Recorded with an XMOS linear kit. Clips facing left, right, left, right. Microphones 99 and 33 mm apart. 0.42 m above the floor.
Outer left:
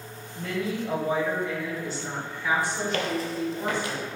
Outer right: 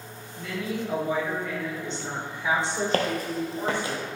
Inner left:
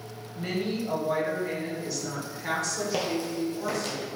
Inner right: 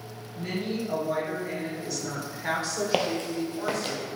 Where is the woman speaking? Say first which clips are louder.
Outer left 2 dB, inner left 1 dB; 45° left (ahead or behind), 1.8 m; by 3.9 s 60° right (ahead or behind), 1.5 m.